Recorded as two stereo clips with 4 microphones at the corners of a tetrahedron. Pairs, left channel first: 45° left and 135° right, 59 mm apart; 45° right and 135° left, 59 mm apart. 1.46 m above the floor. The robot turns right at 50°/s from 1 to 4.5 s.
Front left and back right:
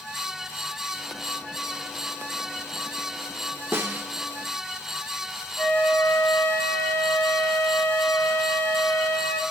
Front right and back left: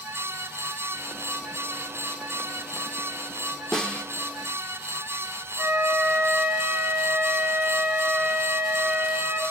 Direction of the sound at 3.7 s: 125° right.